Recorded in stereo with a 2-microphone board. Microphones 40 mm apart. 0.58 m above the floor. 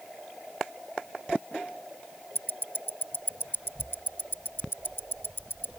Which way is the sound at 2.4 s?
60° left (ahead or behind).